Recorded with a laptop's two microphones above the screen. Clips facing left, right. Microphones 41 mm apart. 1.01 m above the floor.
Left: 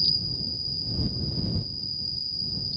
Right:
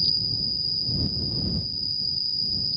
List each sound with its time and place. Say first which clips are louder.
0.0 s an insect: right 1 dB; 90° right